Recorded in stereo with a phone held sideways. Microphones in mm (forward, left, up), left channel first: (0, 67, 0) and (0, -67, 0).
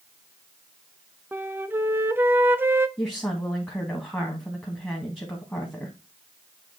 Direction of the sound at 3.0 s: 10° left (ahead or behind).